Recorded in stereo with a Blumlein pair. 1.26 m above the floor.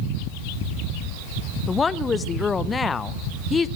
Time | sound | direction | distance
1.7 | a woman speaking | 15° left | 0.7 m